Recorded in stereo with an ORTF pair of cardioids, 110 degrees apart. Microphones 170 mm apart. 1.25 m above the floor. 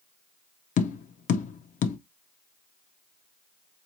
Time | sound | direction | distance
0.8 | tapping | 50° left | 0.7 m